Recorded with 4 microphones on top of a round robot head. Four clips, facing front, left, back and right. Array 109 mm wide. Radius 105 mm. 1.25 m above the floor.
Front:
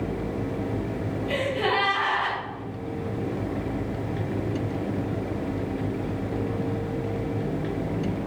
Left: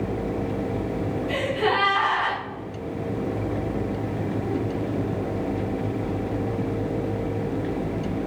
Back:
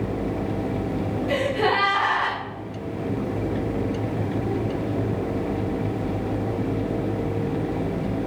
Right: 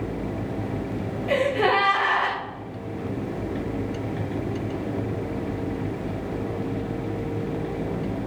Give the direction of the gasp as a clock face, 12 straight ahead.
4 o'clock.